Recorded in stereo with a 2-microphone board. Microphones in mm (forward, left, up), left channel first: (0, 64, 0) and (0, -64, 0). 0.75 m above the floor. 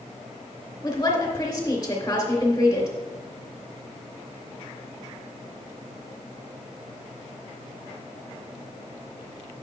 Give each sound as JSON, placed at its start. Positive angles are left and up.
{"t": 0.8, "sound": "a woman speaking", "side_deg": 30, "distance_m": 2.5}